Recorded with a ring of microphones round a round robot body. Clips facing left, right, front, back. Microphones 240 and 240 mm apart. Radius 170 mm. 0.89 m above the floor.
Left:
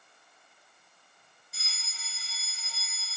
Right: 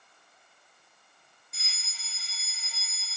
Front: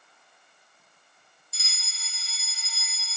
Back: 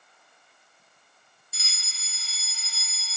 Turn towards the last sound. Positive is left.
turn(degrees=180)